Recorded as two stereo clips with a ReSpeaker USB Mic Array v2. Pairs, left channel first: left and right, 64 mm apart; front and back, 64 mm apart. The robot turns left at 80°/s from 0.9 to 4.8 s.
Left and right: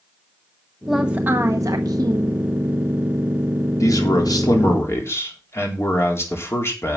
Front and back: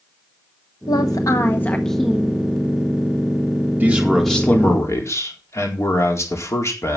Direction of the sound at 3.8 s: 125° left.